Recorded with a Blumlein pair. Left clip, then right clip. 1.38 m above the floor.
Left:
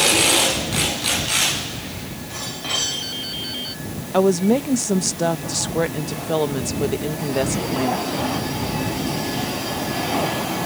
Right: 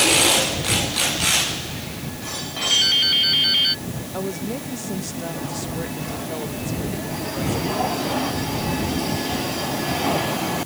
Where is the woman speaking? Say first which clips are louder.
Left 12 dB; 60° left.